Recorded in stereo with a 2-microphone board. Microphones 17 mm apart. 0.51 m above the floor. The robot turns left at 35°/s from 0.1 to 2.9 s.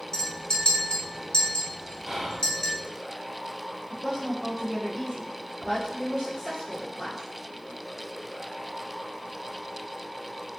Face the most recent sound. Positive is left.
turn(degrees=30)  # may be behind; listen again after turning